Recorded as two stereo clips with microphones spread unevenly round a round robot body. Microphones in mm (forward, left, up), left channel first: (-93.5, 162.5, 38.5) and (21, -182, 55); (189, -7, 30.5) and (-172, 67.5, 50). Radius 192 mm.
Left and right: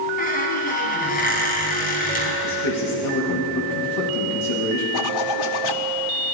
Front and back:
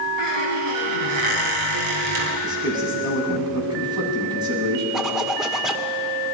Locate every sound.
0.2 s a squeak: 175° left, 5 m
2.4 s a man speaking: 90° left, 8 m
4.9 s a zipper: 80° left, 1.8 m